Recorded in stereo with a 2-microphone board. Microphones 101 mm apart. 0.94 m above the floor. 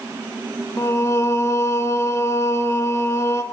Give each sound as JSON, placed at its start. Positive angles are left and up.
{"t": 0.8, "sound": "singing", "side_deg": 30, "distance_m": 1.6}